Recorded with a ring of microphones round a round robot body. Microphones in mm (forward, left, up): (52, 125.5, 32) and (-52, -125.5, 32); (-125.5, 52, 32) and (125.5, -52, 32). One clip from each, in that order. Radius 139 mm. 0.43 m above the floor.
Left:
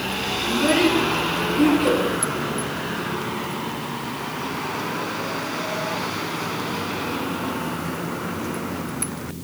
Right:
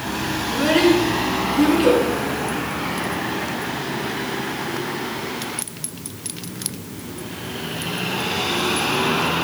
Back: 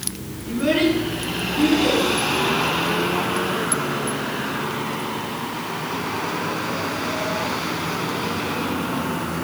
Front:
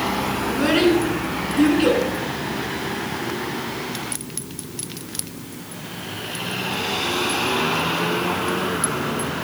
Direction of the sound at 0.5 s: 50° right.